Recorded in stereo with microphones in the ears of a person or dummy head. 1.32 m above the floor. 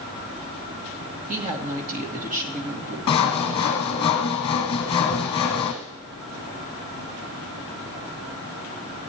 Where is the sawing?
25° left (ahead or behind), 1.4 m.